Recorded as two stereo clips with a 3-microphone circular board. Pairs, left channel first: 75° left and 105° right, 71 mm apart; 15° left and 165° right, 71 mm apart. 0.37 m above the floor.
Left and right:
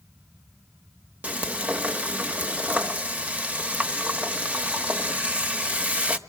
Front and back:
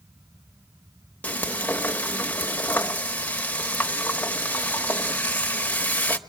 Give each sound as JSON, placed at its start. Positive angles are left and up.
{"t": 1.2, "sound": "frying", "azimuth_deg": -40, "distance_m": 1.1}